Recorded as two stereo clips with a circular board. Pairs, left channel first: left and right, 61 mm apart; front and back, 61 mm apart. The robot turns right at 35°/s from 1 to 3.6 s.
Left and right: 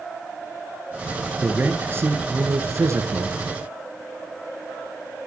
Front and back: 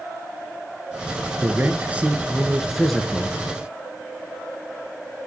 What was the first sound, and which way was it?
A man speaking, 140° right.